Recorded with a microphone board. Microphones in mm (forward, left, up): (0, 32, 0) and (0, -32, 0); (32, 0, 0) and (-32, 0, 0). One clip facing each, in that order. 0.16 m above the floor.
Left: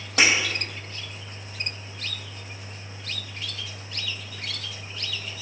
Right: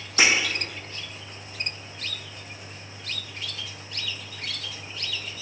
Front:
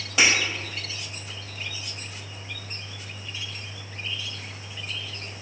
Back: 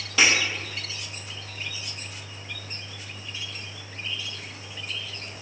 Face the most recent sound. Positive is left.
turn(degrees=75)